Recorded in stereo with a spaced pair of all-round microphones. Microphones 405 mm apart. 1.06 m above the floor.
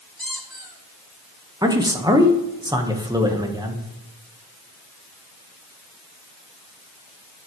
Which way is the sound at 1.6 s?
10° right (ahead or behind).